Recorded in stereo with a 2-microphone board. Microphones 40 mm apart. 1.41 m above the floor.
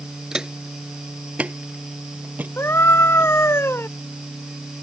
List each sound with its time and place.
0.3 s footsteps: 15° right (ahead or behind); by 3.3 s 50° right (ahead or behind)
2.6 s a scream: 85° left